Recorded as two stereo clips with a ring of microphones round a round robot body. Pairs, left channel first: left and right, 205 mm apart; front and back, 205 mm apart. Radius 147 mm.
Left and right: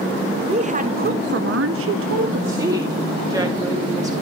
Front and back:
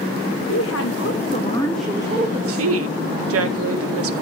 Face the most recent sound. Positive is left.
turn(degrees=-170)